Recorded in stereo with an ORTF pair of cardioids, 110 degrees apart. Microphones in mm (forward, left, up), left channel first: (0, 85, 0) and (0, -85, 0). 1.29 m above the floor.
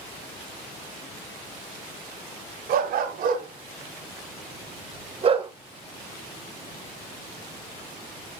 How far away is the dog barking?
About 3.5 m.